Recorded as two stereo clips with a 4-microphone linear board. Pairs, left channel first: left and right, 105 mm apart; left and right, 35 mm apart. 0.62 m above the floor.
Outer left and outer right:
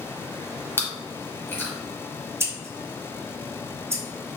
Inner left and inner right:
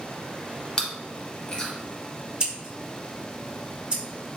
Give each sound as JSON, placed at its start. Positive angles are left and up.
{"t": 0.8, "sound": "chewing", "side_deg": 25, "distance_m": 1.3}
{"t": 2.4, "sound": "scissors", "side_deg": -30, "distance_m": 1.3}